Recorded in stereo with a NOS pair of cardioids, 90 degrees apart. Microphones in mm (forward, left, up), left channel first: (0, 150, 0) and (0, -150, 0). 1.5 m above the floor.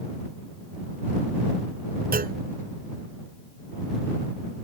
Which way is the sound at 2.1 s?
30° right.